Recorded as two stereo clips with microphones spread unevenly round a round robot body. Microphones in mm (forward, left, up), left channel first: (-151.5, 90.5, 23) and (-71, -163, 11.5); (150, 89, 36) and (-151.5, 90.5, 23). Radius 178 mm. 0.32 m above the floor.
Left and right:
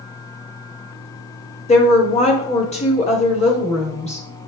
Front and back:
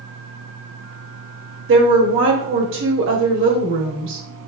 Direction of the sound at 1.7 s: 165° left.